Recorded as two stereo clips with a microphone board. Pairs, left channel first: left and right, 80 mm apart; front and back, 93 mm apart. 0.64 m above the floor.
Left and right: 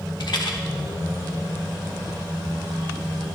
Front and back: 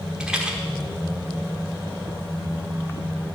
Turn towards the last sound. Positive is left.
turn(degrees=100)